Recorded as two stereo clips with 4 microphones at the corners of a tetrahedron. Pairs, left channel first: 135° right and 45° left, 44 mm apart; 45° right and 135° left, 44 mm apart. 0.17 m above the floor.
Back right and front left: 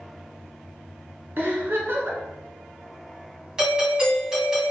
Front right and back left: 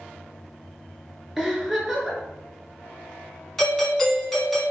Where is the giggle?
55° left, 1.1 m.